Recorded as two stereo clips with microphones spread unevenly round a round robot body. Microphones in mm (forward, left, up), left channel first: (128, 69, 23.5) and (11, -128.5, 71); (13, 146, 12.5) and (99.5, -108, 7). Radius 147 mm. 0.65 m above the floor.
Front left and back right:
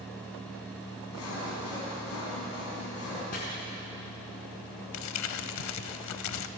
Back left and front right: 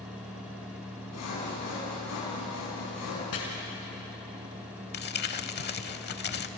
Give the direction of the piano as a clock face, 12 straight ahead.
I don't hear a piano.